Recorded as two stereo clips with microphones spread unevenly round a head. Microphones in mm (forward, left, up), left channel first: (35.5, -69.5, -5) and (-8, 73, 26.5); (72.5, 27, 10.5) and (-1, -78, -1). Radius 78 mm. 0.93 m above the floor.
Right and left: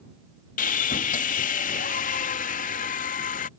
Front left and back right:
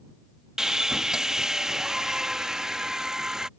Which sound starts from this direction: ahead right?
Sawing, at 0.6 s.